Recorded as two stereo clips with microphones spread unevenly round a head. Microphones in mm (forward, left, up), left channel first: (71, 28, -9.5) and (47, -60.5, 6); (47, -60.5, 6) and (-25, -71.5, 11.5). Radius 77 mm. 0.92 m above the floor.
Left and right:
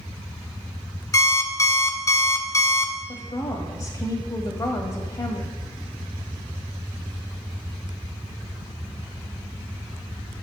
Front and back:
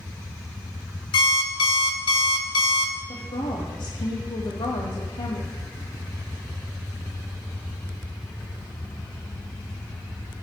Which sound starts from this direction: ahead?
An alarm clock, at 1.1 s.